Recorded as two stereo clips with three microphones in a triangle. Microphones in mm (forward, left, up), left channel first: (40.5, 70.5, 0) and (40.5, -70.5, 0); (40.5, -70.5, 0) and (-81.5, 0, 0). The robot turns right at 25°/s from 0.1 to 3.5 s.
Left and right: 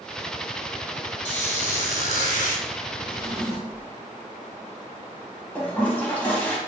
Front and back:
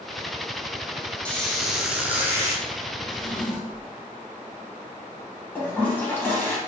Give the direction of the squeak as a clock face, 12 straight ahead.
10 o'clock.